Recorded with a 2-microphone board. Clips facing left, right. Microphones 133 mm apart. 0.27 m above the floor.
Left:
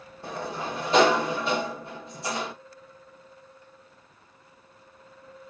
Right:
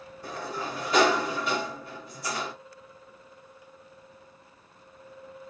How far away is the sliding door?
About 1.6 m.